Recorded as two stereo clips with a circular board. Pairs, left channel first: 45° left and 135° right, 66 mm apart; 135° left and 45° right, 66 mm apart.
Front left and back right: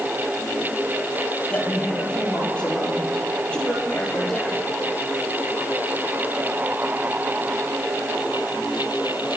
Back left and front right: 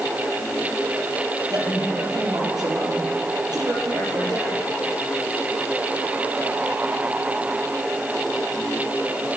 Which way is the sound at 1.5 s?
30° right.